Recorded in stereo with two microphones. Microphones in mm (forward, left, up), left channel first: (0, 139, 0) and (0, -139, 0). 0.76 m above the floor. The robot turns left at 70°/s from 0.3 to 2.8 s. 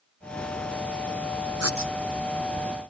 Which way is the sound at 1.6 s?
60° right (ahead or behind).